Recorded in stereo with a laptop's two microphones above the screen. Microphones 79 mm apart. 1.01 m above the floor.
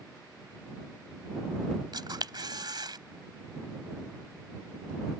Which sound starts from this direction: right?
A camera shutter, at 1.9 s.